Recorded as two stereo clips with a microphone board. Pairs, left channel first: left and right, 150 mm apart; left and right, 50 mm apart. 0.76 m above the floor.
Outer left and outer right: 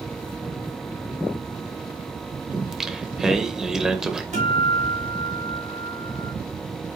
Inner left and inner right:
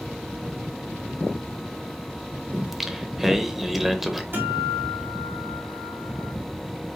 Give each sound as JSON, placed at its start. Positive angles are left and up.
{"t": 2.5, "sound": "singing", "side_deg": -5, "distance_m": 0.7}
{"t": 4.3, "sound": "a guitar", "side_deg": -55, "distance_m": 3.0}